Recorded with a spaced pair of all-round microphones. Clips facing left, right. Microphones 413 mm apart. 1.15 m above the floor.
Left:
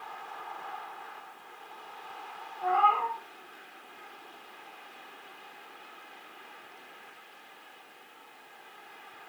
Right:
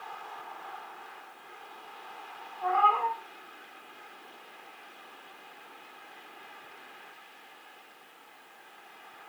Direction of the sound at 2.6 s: 25° left (ahead or behind).